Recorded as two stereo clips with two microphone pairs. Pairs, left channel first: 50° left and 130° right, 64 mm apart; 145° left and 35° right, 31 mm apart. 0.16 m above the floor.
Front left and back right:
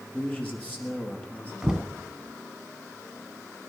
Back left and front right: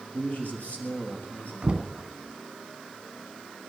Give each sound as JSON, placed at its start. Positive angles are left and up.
{"t": 0.1, "sound": "a man speaking", "azimuth_deg": 110, "distance_m": 3.5}
{"t": 1.6, "sound": "knocking", "azimuth_deg": -55, "distance_m": 0.9}